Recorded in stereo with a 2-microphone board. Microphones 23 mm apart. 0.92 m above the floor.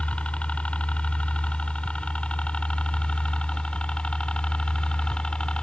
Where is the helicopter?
60° left (ahead or behind); by 5.6 s 45° left (ahead or behind).